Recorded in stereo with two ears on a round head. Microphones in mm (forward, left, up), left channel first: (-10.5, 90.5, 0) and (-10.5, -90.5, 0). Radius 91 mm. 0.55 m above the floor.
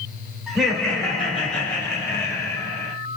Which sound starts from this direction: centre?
Laughter, at 0.5 s.